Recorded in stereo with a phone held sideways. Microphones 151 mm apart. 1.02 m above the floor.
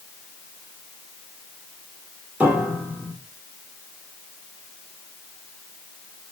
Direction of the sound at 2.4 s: 10° right (ahead or behind).